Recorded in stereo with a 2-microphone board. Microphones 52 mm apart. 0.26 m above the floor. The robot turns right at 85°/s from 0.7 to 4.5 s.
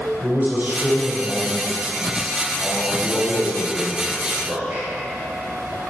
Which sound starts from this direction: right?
A man speaking, at 0.2 s.